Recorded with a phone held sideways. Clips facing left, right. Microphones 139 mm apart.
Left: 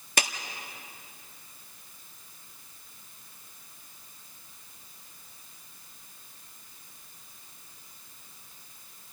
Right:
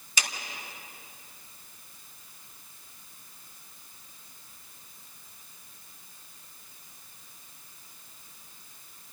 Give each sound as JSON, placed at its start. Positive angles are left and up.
{"t": 0.2, "sound": "a clap", "side_deg": 60, "distance_m": 1.6}